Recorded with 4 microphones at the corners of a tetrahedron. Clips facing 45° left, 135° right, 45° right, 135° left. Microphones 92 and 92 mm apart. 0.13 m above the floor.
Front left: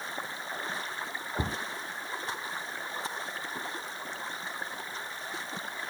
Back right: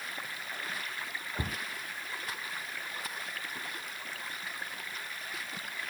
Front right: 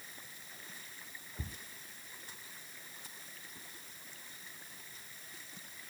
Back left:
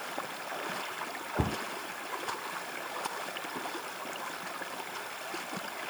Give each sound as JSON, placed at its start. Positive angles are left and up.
{"t": 0.0, "sound": "running water", "azimuth_deg": 110}
{"t": 1.4, "sound": "a cupboard door", "azimuth_deg": 115}